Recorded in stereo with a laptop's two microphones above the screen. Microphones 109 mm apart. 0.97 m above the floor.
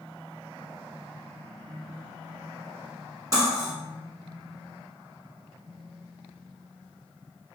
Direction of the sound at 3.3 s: 35° right (ahead or behind).